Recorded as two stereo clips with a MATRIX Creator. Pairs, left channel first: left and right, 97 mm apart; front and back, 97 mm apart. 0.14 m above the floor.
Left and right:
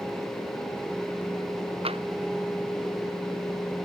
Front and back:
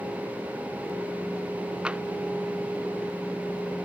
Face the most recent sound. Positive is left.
turn(degrees=-100)